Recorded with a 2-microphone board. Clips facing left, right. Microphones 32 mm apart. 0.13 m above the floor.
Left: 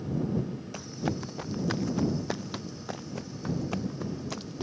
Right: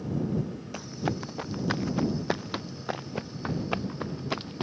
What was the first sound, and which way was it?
Running footsteps, 10° right (ahead or behind).